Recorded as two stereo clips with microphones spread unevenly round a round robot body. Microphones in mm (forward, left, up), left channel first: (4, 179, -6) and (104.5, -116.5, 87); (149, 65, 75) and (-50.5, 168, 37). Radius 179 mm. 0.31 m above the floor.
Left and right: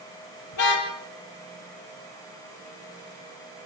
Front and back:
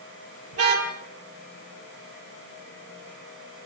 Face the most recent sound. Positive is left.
turn(degrees=145)